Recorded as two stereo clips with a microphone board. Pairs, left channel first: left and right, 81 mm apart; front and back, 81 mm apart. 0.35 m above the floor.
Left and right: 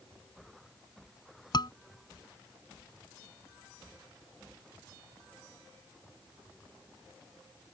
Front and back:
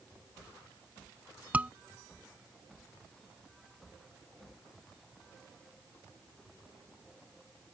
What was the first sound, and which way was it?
A scream, 110° left.